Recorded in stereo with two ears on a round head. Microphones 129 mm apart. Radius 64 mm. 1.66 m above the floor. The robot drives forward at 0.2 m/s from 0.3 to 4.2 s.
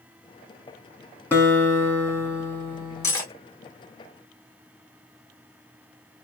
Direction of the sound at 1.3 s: 10° left (ahead or behind).